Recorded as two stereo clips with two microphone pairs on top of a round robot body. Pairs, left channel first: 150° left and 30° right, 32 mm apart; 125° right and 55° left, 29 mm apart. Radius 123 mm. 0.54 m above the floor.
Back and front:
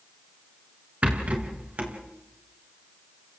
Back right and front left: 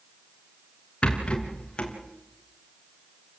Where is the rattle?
75° right, 3.5 m.